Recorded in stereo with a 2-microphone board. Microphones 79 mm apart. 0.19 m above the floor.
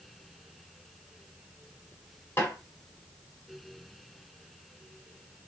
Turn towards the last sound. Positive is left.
turn(degrees=30)  # may be behind; listen again after turning